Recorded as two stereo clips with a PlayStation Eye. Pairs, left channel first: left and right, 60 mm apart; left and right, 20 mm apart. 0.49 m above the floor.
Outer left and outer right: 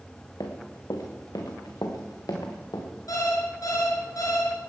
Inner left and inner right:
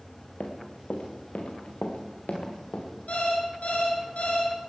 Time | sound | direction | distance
0.4 | running footsteps | 75° left (ahead or behind) | 2.5 m
3.1 | an alarm clock | 80° left | 4.5 m